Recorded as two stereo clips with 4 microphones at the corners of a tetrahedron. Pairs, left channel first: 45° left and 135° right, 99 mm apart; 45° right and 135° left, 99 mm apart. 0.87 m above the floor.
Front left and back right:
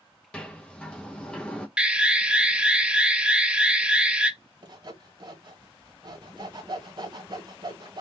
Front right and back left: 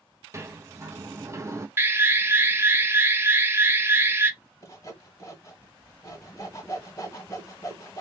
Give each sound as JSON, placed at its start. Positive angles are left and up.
{"t": 0.3, "sound": "a sliding door", "azimuth_deg": 115, "distance_m": 0.7}
{"t": 1.8, "sound": "an alarm", "azimuth_deg": 155, "distance_m": 0.6}
{"t": 4.6, "sound": "sawing", "azimuth_deg": -100, "distance_m": 1.4}